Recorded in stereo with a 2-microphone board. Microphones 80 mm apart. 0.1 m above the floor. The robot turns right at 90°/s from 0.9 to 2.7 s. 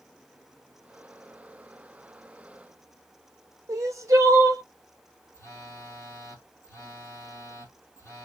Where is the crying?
40° right (ahead or behind), 0.7 m.